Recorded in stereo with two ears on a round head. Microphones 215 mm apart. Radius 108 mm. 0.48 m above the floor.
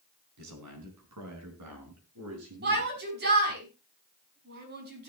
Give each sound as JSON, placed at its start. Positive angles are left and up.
{"t": 0.4, "sound": "a man speaking", "side_deg": -80, "distance_m": 4.5}
{"t": 2.6, "sound": "a shout", "side_deg": -40, "distance_m": 5.0}